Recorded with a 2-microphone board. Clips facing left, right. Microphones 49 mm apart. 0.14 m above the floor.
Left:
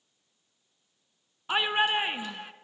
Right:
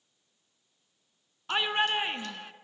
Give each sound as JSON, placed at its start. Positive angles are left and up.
{"t": 1.5, "sound": "a shout", "side_deg": 10, "distance_m": 1.3}